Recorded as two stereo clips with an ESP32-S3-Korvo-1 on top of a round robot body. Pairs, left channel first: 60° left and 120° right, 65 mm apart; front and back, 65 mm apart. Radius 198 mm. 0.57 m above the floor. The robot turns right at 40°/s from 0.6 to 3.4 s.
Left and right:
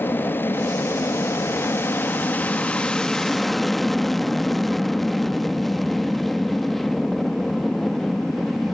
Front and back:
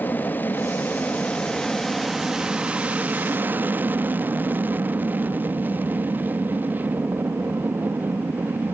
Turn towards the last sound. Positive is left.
turn(degrees=145)